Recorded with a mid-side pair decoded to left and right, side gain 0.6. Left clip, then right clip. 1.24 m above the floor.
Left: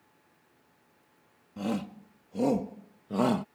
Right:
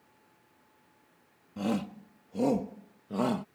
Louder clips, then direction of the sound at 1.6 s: Right 1 dB; 5° right.